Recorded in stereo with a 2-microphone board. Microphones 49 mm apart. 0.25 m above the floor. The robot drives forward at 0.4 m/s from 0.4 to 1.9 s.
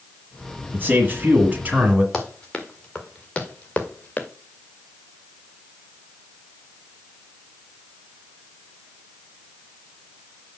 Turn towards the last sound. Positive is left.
turn(degrees=30)  # may be behind; listen again after turning